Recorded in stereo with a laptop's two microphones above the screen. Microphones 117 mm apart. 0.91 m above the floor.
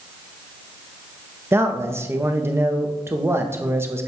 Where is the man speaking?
20° right (ahead or behind), 0.6 m.